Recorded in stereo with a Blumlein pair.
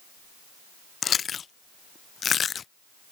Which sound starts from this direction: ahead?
Chewing, at 1.0 s.